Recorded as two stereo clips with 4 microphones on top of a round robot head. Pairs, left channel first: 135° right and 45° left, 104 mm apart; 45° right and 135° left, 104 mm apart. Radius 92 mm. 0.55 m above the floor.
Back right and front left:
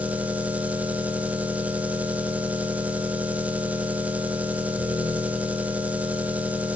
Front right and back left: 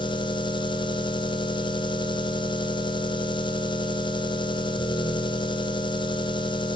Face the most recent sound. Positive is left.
turn(degrees=-30)